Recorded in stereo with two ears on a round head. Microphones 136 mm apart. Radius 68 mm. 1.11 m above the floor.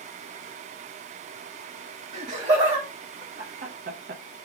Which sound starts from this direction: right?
Laughter, at 2.1 s.